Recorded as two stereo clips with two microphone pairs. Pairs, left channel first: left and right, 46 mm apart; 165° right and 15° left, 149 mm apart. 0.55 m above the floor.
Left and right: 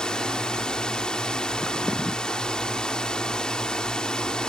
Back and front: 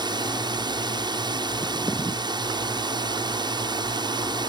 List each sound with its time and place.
0.0 s a drone: 35° left